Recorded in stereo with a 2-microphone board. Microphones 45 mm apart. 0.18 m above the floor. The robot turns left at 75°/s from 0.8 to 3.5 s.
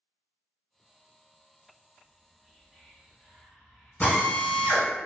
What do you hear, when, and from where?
2.0 s whispering: 30° right (ahead or behind), 1.1 m; by 5.0 s 15° left (ahead or behind), 1.1 m
4.0 s a drill: 35° left (ahead or behind), 0.8 m